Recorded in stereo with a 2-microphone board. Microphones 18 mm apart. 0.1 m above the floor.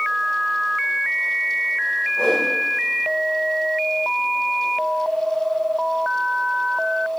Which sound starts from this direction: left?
A whoosh, at 2.2 s.